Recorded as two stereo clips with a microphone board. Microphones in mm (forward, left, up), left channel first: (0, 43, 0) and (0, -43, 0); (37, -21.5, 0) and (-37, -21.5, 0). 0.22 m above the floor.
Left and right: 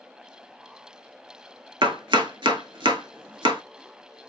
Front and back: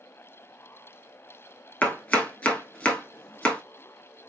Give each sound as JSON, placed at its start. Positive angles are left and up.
{"t": 1.8, "sound": "chopping", "azimuth_deg": -70, "distance_m": 0.7}